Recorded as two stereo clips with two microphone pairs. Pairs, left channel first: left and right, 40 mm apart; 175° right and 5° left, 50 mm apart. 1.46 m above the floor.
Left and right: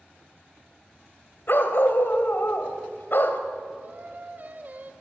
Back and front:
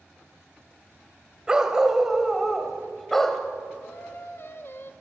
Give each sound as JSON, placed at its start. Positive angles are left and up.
{"t": 1.5, "sound": "a dog barking", "azimuth_deg": 80, "distance_m": 2.5}
{"t": 3.8, "sound": "singing", "azimuth_deg": -135, "distance_m": 1.5}